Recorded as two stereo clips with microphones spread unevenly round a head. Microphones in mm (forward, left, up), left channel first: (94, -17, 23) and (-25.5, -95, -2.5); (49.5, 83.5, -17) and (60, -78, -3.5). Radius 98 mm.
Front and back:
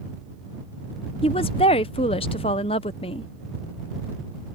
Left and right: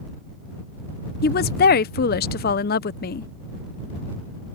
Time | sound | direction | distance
1.2 | a woman speaking | 95° left | ?